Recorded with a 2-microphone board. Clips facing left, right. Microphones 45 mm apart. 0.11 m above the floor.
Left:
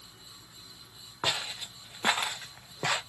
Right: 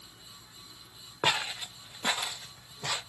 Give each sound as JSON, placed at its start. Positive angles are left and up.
{"t": 1.2, "sound": "footsteps", "side_deg": -35, "distance_m": 0.8}